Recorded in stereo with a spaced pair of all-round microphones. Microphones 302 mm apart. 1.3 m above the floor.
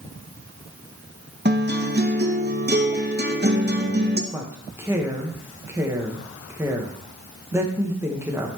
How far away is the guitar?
About 0.7 m.